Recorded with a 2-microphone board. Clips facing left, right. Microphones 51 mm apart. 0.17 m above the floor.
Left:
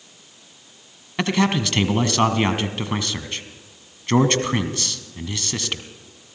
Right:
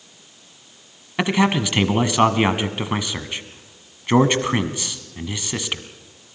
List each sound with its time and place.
1.2 s a man speaking: 15° right (ahead or behind), 1.5 m